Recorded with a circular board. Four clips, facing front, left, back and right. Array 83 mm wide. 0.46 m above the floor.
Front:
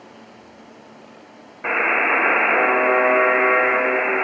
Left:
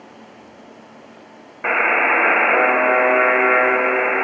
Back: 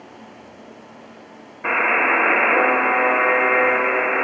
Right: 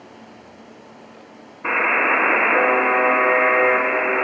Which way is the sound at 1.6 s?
80° left.